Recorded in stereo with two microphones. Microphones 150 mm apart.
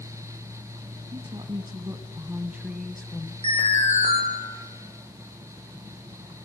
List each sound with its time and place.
1.1 s a woman speaking: 35° right (ahead or behind), 2 m; by 3.3 s 20° left (ahead or behind), 1.1 m
3.4 s an alarm: 45° right (ahead or behind), 7 m